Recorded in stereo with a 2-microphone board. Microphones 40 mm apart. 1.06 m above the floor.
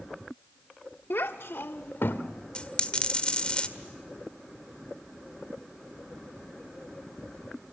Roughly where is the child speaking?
Left.